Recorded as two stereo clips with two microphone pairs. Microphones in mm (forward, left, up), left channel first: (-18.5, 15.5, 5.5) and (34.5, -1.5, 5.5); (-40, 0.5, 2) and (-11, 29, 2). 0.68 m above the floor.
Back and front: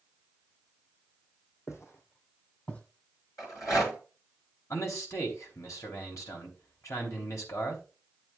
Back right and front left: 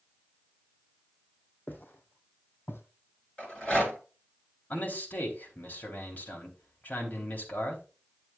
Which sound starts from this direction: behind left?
A rattle, at 3.4 s.